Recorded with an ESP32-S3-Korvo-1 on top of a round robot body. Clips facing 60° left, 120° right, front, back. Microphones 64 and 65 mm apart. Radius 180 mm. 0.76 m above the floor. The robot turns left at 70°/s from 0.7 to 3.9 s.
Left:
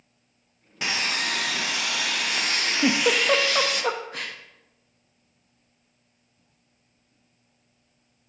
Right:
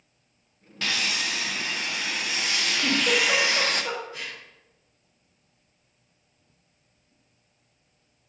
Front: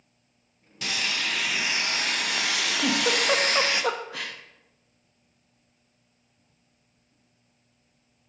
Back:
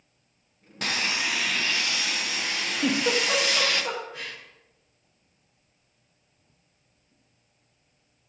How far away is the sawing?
About 0.8 m.